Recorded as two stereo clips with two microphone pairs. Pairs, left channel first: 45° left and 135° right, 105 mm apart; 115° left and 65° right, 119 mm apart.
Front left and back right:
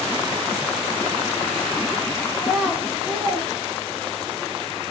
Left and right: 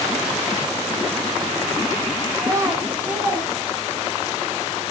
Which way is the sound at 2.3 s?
25° right.